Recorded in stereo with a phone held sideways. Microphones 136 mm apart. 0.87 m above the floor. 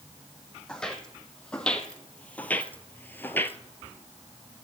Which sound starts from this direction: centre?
Footsteps, at 0.7 s.